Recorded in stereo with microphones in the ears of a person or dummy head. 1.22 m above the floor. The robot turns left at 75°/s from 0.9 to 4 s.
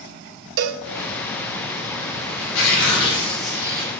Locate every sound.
0.6 s a cowbell: 65° right (ahead or behind), 1.0 m
2.4 s tearing paper: 75° left, 5.5 m; by 3.9 s 40° right, 5.5 m